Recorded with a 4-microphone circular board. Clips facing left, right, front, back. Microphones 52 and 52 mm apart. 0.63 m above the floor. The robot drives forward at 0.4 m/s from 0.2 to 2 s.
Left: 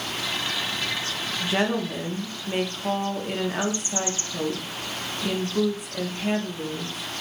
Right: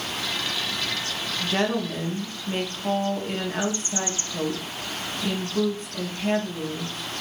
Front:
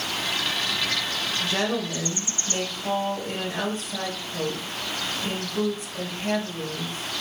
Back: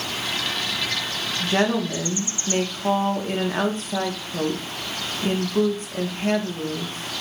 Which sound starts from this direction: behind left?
A woman speaking, at 1.4 s.